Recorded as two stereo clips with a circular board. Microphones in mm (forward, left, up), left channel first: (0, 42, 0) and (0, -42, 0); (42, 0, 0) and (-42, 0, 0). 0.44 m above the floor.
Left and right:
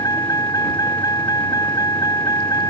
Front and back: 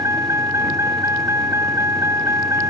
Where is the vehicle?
130° left.